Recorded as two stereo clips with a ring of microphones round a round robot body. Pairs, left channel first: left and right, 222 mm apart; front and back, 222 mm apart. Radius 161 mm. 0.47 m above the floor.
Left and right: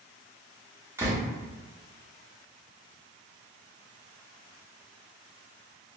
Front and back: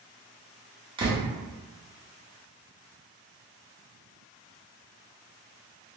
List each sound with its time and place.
1.0 s a door slam: 150° right, 0.6 m